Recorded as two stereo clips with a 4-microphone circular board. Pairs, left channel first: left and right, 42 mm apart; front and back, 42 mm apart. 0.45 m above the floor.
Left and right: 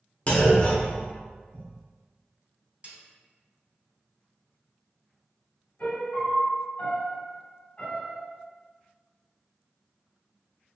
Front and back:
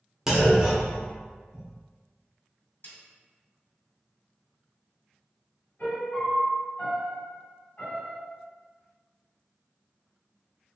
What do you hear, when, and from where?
0.3 s a clunk: 105° left, 0.8 m
2.8 s a snare drum: 35° right, 1.6 m
5.8 s a piano: 40° left, 1.6 m